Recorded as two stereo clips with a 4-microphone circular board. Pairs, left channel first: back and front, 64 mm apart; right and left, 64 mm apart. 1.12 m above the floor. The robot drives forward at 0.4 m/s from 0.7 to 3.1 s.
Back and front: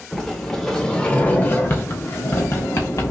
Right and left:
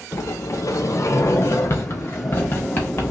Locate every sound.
0.1 s a sliding door: 100° right, 0.7 m; by 3.1 s 150° right, 1.3 m